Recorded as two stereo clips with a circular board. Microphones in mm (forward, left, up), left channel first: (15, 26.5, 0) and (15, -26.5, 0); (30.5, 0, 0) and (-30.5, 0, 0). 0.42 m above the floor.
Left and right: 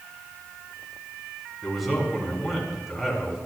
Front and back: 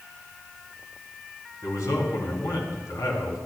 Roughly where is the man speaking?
Ahead.